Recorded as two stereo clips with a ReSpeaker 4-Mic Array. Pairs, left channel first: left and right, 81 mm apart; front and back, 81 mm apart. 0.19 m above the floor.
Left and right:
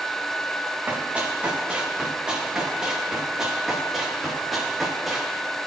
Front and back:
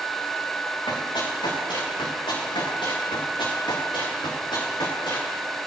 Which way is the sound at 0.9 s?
15° right.